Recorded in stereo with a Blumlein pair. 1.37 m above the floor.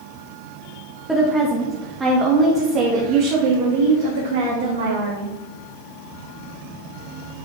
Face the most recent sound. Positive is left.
turn(degrees=-70)